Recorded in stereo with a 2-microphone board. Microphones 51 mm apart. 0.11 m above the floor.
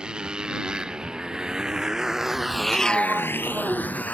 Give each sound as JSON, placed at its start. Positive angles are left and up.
{"t": 0.0, "sound": "a motorcycle", "side_deg": -20}
{"t": 2.7, "sound": "a sliding door", "side_deg": -25}